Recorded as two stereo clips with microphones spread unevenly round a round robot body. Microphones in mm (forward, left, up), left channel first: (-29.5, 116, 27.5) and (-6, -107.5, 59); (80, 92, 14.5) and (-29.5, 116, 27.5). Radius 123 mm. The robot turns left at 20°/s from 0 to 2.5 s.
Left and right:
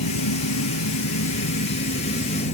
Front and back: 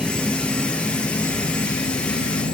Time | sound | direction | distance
0.0 | an insect | 85° left | ?